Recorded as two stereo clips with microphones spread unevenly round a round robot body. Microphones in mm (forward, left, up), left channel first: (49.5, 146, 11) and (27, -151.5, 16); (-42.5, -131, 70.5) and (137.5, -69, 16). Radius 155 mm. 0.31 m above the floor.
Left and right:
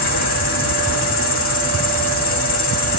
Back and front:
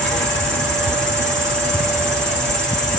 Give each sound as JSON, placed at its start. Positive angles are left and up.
{"t": 0.0, "sound": "an insect", "azimuth_deg": 85, "distance_m": 2.0}